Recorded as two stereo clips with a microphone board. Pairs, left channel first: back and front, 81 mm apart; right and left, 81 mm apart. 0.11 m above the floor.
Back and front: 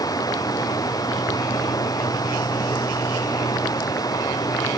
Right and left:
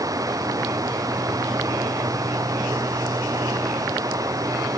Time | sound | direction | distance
0.0 | running water | 135° left | ?